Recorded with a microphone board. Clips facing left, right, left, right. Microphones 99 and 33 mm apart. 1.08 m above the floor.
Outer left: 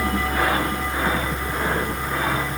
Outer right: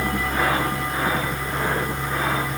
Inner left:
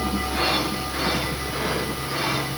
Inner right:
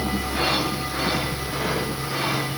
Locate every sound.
Only background noise.